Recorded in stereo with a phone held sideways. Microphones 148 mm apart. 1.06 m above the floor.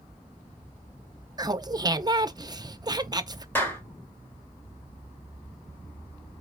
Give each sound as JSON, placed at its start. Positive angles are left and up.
{"t": 1.4, "sound": "laughter", "side_deg": -30, "distance_m": 0.6}
{"t": 3.5, "sound": "a clap", "side_deg": 15, "distance_m": 1.4}